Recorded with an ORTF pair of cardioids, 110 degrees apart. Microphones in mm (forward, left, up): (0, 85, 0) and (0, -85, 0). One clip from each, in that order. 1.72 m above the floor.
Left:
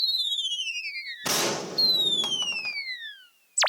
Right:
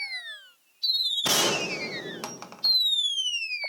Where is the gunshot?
10° right, 1.5 m.